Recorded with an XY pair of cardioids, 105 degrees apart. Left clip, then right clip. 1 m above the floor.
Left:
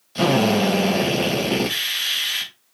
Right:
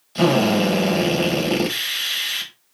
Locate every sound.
0.1 s a drill: 5° right, 4 m